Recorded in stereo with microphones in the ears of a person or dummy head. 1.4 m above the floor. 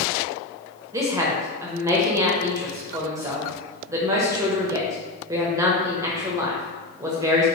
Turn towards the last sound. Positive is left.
turn(degrees=-15)  # may be behind; listen again after turning